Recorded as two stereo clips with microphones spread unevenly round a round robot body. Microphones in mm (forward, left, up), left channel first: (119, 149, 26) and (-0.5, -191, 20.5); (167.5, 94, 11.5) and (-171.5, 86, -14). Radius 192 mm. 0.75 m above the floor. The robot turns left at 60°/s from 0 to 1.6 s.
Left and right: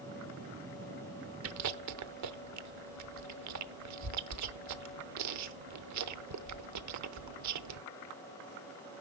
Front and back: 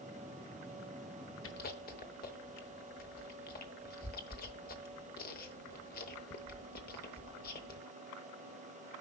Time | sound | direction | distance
1.4 | chewing | 55° right | 0.8 m